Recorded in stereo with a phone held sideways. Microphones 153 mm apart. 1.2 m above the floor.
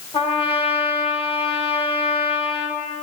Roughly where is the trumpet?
Left.